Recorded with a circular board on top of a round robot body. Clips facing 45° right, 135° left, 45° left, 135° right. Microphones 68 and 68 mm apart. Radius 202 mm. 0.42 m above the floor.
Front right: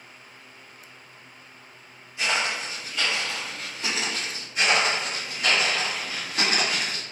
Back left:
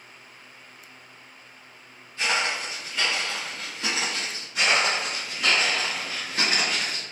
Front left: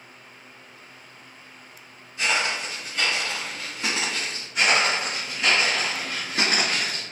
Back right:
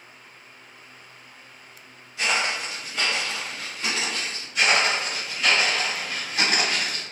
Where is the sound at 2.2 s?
125° right, 1.0 m; by 4.5 s 100° left, 0.8 m.